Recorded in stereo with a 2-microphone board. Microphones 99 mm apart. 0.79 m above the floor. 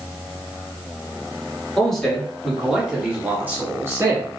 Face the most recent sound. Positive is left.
turn(degrees=-35)  # may be behind; listen again after turning